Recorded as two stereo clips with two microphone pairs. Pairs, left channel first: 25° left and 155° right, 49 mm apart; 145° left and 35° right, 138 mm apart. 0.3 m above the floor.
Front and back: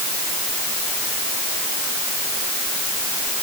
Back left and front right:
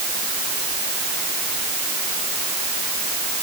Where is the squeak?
No squeak in this recording.